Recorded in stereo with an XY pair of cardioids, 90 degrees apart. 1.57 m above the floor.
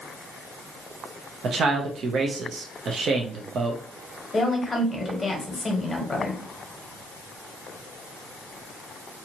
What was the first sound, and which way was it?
A man speaking, 65° right.